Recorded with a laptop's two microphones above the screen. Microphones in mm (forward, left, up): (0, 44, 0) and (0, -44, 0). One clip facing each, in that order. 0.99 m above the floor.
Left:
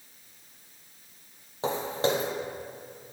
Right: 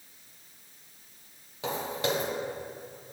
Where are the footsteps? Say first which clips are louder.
Left 3 dB; 30° left (ahead or behind), 1.2 m.